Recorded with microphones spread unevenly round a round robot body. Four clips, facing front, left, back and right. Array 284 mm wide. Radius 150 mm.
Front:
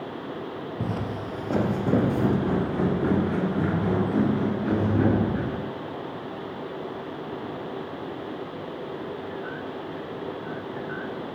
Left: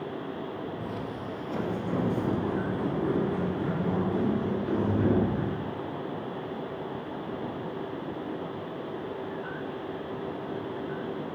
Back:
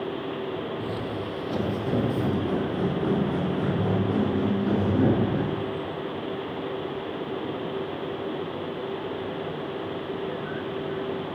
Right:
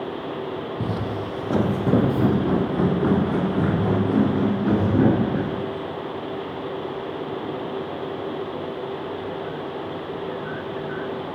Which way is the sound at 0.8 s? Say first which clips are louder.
Right 8 dB, even; 55° right.